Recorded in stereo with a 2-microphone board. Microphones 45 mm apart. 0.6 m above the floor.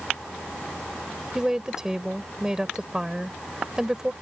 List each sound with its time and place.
1.4 s a woman speaking: 15° right (ahead or behind)